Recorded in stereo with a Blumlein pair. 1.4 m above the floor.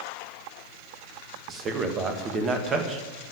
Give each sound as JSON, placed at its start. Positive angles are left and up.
{"t": 1.5, "sound": "a man speaking", "azimuth_deg": -25, "distance_m": 1.8}